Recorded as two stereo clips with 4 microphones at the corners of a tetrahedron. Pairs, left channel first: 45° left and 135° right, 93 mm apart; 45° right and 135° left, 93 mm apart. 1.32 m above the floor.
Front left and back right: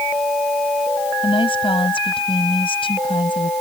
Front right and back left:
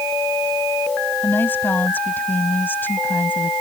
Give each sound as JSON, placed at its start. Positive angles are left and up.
{"t": 1.2, "sound": "a woman speaking", "azimuth_deg": 25}